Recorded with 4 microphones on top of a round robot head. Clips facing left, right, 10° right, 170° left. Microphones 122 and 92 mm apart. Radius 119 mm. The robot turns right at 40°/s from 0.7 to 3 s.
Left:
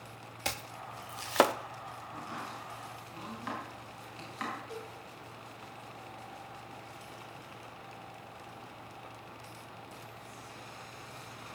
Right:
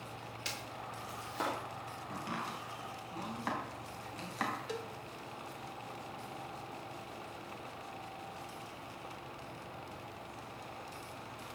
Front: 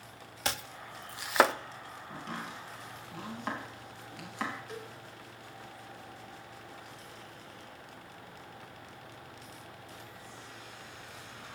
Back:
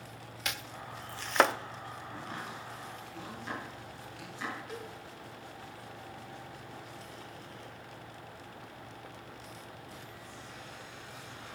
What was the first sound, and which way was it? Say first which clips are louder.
Chopping: left 6 dB, front 4 dB; 45° left.